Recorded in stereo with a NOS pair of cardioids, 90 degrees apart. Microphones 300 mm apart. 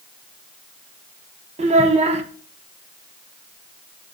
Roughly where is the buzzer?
No buzzer in this recording.